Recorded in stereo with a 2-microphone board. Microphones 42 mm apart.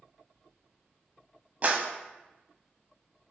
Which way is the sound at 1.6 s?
40° right (ahead or behind).